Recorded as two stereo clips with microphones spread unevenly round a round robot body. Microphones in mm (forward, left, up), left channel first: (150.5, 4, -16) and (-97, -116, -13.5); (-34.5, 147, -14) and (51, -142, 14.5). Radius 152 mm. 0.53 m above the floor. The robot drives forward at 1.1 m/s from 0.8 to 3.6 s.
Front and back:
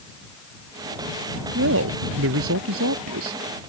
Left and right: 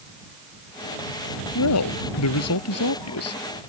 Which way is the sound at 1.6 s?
150° left.